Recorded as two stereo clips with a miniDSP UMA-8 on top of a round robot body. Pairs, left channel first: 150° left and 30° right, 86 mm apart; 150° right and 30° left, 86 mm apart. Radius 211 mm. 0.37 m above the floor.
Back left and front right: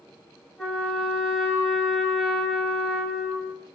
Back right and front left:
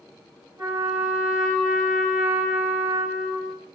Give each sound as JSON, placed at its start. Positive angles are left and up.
{"t": 0.6, "sound": "a trumpet", "azimuth_deg": 55, "distance_m": 1.7}